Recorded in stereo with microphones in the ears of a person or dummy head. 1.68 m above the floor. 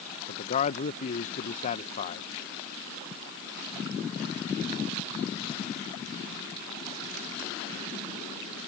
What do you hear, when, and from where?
0.3 s a man speaking: 40° left (ahead or behind)